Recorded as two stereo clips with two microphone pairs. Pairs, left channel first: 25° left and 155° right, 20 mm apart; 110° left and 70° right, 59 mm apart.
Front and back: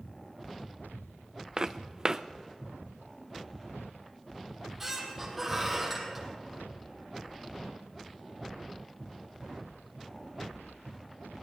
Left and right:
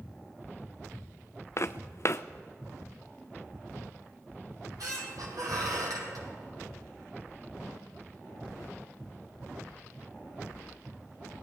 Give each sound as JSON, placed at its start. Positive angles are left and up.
{"t": 1.6, "sound": "footsteps", "azimuth_deg": 145, "distance_m": 0.6}
{"t": 4.5, "sound": "a squeak", "azimuth_deg": -75, "distance_m": 3.0}